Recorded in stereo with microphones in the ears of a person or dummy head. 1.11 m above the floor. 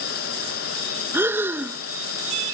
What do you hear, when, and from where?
0.0 s a fan: 65° left (ahead or behind)
1.1 s breathing: 5° right (ahead or behind)